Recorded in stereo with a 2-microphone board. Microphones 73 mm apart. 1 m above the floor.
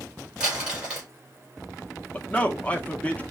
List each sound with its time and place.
0.4 s crumpling: 15° right (ahead or behind), 3 m
2.1 s a man speaking: 20° left (ahead or behind), 0.9 m